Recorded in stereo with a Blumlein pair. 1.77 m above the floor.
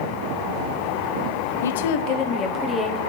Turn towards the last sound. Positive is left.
turn(degrees=10)